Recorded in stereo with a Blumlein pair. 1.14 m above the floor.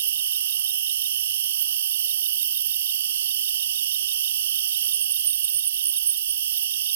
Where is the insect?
65° right.